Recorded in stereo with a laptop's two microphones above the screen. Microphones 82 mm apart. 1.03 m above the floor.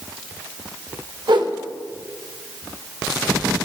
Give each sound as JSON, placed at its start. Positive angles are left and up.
{"t": 1.3, "sound": "a whoosh", "side_deg": -65, "distance_m": 1.3}